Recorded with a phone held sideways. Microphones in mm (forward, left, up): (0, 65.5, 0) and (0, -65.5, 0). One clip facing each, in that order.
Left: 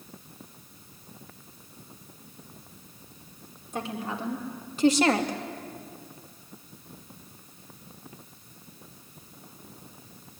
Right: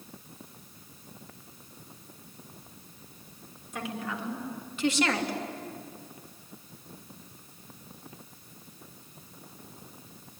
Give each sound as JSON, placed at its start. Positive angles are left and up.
{"t": 3.7, "sound": "a woman speaking", "side_deg": 30, "distance_m": 4.0}